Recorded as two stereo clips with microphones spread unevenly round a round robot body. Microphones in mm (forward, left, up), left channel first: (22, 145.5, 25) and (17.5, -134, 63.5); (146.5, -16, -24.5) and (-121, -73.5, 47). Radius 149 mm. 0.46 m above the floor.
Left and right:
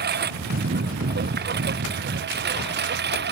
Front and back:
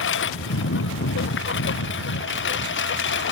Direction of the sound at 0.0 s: 35° right.